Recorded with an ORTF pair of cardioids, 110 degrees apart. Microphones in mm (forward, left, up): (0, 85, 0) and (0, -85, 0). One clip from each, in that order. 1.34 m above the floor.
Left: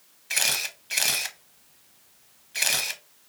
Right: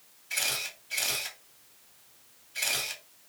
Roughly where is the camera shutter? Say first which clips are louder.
Left 6 dB; left.